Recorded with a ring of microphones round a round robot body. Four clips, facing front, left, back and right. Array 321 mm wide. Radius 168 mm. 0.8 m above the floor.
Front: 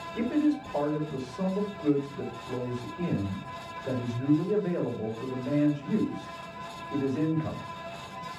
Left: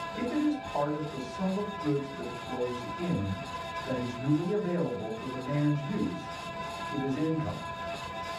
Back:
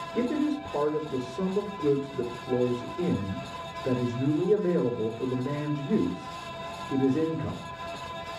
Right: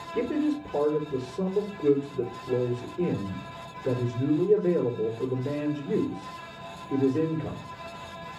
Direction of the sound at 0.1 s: 125° right.